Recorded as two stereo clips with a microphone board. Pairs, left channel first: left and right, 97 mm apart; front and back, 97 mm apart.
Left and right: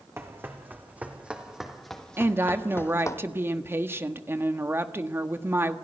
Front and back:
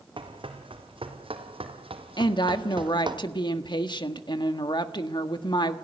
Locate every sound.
0.2 s running footsteps: 155° right, 3 m; by 3.2 s 145° left, 2.0 m
2.2 s a woman speaking: 25° right, 1.4 m